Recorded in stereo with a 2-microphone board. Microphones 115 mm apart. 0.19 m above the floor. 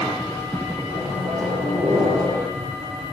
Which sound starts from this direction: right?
A microwave, at 0.9 s.